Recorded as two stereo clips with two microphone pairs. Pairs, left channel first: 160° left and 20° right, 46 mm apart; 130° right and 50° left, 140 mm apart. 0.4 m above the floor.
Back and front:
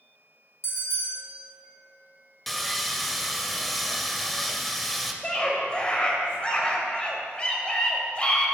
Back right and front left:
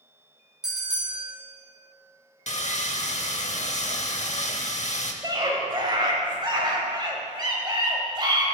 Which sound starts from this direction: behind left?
A bell, at 0.6 s.